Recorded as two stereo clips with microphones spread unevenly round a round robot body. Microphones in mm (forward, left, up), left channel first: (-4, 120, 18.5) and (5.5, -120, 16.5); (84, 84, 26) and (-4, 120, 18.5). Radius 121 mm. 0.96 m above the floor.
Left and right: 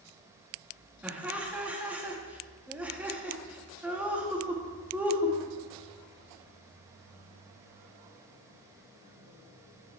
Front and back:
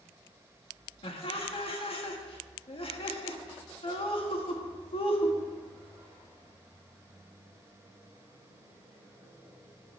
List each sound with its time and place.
1.0 s laughter: 5° right, 2 m